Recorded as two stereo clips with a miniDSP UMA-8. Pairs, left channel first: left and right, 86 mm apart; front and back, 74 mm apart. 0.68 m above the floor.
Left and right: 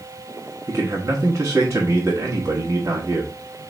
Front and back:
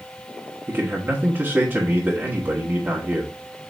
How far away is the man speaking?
About 1.5 m.